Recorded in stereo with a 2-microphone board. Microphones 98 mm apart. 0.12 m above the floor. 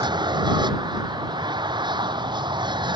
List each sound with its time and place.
0.0 s an aircraft: 50° right (ahead or behind)